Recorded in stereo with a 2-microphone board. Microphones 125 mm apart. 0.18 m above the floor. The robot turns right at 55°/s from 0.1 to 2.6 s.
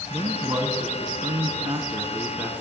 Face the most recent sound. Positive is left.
turn(degrees=-5)